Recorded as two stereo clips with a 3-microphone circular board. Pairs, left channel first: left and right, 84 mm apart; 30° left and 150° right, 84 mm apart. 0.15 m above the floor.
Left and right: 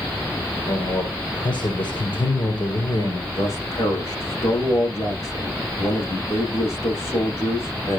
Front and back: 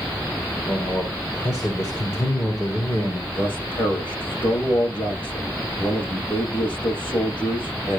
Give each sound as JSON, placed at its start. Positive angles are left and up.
{"t": 0.7, "sound": "a man speaking", "azimuth_deg": 80, "distance_m": 4.0}
{"t": 3.3, "sound": "a man speaking", "azimuth_deg": 35, "distance_m": 10.0}